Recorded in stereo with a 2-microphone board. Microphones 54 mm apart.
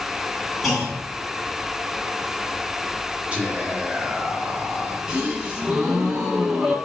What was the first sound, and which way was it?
A clunk, centre (ahead or behind).